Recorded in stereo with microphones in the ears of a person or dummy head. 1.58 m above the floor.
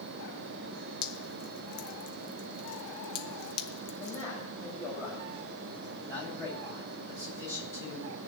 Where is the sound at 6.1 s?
10° left (ahead or behind), 9.5 m.